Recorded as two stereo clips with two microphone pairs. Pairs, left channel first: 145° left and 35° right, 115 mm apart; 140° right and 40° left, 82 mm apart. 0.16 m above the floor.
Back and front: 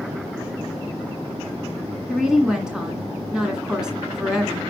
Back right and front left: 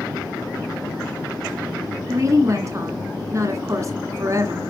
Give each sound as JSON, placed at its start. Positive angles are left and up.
{"t": 2.1, "sound": "a woman speaking", "azimuth_deg": 45, "distance_m": 1.7}